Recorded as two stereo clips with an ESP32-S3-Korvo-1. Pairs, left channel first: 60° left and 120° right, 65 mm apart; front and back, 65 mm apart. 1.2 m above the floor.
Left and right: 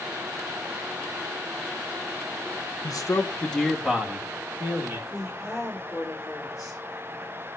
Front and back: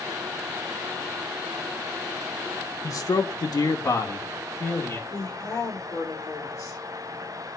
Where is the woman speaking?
35° right, 4 m.